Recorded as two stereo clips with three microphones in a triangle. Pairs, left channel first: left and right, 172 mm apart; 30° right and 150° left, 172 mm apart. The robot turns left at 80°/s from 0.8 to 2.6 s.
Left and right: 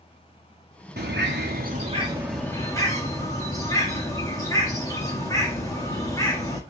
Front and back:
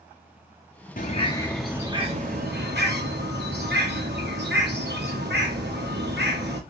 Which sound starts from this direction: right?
A bird, at 1.0 s.